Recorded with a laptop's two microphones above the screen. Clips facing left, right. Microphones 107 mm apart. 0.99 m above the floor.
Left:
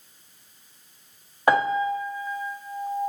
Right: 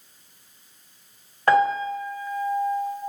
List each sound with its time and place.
1.5 s a piano: 15° left (ahead or behind), 0.8 m